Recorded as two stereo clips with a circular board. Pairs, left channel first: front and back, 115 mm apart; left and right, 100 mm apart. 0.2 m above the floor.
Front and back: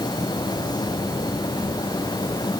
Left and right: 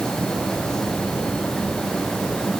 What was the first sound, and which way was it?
Only background noise.